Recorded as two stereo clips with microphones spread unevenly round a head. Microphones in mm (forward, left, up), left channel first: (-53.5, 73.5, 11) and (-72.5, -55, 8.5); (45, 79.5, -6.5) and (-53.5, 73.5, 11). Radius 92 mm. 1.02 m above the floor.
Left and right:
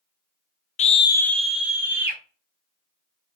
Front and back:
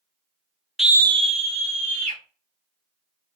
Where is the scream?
85° left, 0.7 m; by 2.2 s 170° right, 1.9 m.